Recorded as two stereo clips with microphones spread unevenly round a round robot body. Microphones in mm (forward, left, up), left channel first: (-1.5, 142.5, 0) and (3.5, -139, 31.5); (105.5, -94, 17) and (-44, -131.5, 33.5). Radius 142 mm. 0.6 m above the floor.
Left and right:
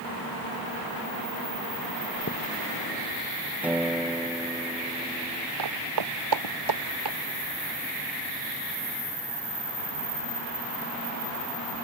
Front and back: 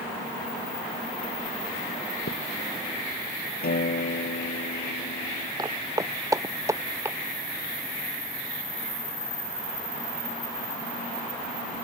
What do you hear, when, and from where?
2.3 s a thud: 40° left
3.6 s a guitar: 5° right
5.6 s footsteps: 105° right; by 7.2 s 95° right